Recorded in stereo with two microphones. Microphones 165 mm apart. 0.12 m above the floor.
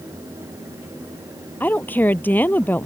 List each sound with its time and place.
1.6 s a woman speaking: 10° left (ahead or behind)